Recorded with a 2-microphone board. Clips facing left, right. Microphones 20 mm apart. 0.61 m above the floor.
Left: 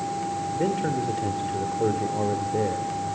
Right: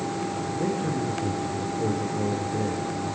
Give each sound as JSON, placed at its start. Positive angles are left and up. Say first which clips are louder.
{"t": 0.6, "sound": "a man speaking", "louder": "left 2 dB", "side_deg": 55, "distance_m": 2.0}